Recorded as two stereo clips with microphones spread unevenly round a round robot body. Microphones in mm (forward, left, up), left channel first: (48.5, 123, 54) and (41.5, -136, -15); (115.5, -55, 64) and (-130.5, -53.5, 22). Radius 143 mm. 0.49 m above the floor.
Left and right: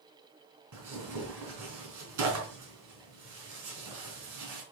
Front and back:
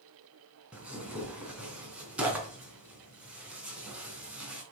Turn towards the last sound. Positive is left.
turn(degrees=-95)